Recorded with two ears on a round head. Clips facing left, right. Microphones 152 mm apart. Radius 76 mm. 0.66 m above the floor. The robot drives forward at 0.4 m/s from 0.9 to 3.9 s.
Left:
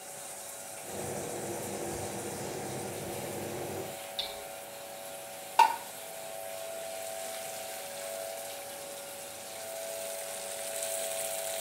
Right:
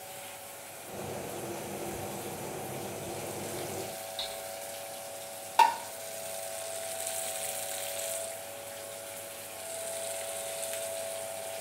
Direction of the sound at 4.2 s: 30° left (ahead or behind).